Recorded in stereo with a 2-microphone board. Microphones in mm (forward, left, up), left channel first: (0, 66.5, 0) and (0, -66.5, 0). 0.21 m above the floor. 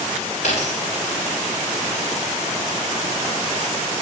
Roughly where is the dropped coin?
Left.